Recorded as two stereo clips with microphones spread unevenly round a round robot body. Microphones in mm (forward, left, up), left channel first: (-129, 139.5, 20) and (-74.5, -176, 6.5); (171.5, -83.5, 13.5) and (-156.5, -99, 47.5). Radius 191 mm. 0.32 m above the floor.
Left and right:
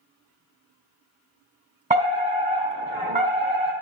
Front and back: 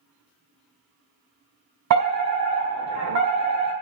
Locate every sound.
1.9 s a fire alarm: 145° right, 4 m